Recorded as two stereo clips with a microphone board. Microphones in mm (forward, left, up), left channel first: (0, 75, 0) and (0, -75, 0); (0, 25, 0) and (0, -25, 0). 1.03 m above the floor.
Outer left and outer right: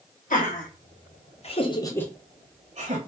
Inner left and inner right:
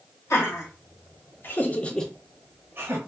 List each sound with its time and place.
0.3 s laughter: 65° left (ahead or behind), 1.6 m; by 3.0 s 50° right (ahead or behind), 0.8 m